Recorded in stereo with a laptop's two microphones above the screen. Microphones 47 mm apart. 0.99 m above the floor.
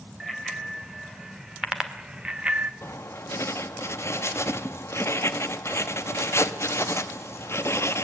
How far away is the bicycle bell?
About 3 m.